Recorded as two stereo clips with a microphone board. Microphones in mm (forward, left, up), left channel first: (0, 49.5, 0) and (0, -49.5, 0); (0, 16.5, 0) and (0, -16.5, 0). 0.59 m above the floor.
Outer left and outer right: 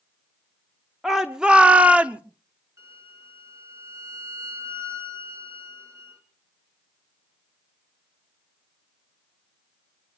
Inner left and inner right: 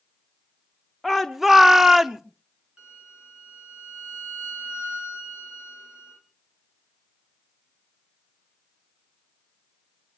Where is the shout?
Centre (ahead or behind), 0.8 m; by 2.2 s 15° right (ahead or behind), 0.9 m.